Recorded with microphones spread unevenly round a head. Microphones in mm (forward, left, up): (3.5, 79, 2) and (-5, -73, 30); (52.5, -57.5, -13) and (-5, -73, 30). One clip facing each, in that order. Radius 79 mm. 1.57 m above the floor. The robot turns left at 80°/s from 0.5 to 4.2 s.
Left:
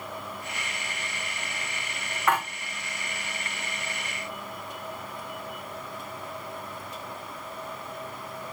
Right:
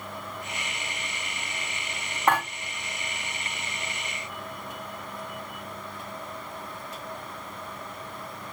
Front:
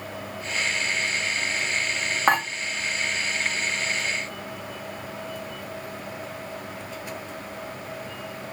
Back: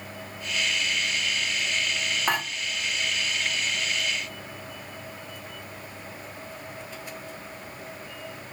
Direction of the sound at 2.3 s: 35° right.